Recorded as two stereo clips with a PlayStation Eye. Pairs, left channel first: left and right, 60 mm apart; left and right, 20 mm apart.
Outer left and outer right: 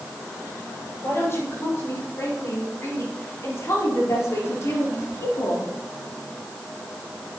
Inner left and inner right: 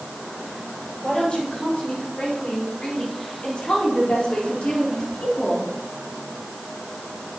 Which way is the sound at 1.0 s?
45° left (ahead or behind).